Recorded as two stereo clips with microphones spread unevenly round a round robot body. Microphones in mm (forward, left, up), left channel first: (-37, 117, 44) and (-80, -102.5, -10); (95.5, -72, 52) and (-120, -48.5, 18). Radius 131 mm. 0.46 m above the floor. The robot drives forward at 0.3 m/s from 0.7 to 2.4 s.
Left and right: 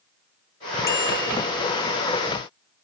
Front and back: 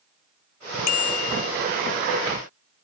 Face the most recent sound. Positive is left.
turn(degrees=0)